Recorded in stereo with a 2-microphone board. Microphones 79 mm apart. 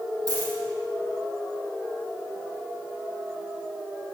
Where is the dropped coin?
50° right (ahead or behind), 4.5 m.